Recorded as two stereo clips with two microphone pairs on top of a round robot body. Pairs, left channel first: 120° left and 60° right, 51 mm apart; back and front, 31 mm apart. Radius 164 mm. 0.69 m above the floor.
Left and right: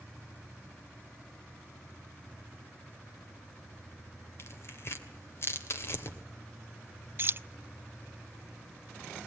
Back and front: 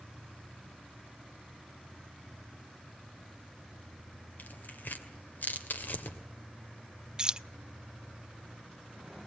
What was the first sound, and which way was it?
Tearing paper, 155° left.